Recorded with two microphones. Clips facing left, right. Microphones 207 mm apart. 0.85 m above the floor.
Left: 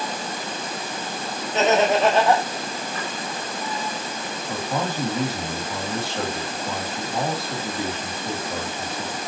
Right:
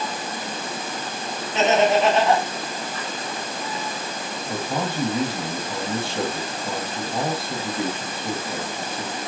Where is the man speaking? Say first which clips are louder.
Even; 25° right (ahead or behind), 1.5 m.